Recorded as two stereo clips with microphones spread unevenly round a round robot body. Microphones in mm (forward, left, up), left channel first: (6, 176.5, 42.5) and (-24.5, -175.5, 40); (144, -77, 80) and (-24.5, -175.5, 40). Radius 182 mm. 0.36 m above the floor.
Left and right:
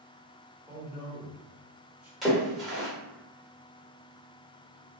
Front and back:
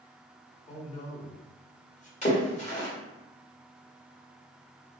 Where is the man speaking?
15° right, 1.1 m.